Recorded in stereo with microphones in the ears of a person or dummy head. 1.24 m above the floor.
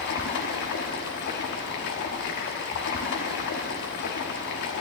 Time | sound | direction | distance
0.0 | running water | 50° left (ahead or behind) | 1.1 m